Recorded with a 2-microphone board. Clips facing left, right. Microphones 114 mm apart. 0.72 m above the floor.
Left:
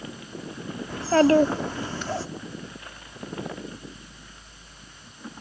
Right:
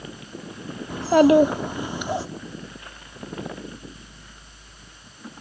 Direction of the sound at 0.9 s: 15° right (ahead or behind).